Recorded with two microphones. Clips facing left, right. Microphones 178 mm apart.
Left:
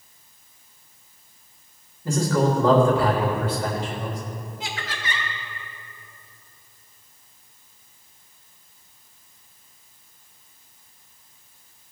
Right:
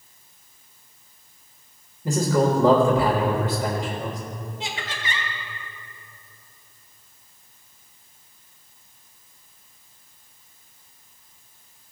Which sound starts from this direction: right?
Laughter, at 4.6 s.